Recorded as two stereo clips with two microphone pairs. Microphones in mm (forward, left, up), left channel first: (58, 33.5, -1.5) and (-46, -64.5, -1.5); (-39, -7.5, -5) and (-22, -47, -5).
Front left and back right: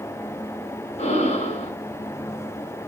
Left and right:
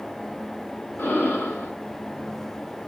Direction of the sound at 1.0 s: 80° left.